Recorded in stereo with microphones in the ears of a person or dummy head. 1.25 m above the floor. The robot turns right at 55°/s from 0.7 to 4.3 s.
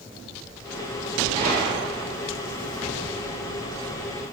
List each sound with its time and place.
1.3 s a gunshot: 150° right, 4 m; by 2.1 s 105° right, 4 m